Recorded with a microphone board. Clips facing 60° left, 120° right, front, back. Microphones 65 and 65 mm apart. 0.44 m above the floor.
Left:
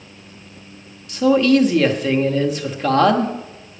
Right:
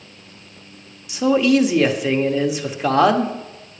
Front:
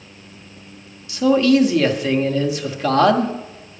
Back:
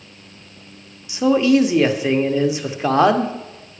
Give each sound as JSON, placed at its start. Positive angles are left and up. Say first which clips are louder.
{"t": 1.1, "sound": "a man speaking", "louder": "left 2 dB, even", "azimuth_deg": -175, "distance_m": 0.8}